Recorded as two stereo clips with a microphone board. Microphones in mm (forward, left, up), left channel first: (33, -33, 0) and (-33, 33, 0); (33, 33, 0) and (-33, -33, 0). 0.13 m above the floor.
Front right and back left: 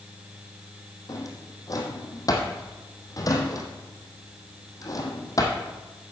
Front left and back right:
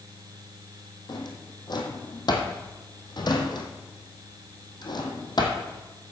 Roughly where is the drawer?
Ahead.